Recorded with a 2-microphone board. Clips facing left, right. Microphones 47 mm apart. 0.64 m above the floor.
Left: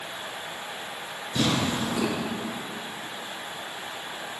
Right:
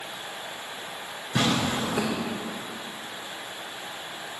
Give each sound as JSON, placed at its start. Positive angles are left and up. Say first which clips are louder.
{"t": 1.4, "sound": "tearing paper", "louder": "right 1 dB", "side_deg": -60, "distance_m": 3.0}